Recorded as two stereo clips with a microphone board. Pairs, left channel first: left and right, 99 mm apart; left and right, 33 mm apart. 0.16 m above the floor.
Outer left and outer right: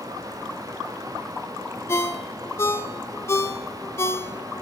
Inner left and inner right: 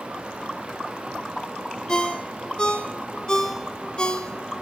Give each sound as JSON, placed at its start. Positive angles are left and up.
{"t": 1.9, "sound": "a ringtone", "side_deg": 30, "distance_m": 0.7}